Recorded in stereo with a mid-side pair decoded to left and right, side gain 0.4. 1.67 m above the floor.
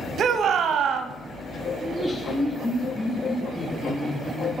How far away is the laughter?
About 3.5 m.